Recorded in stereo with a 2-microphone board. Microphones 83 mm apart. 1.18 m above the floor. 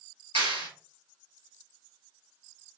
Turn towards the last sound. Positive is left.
turn(degrees=-80)